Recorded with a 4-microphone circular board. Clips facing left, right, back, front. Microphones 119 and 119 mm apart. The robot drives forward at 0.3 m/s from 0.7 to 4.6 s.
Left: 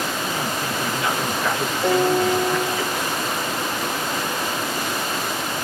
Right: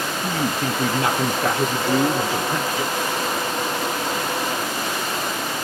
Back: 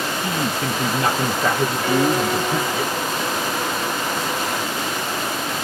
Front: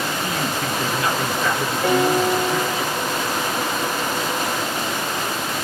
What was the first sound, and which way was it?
A man speaking, 120° right.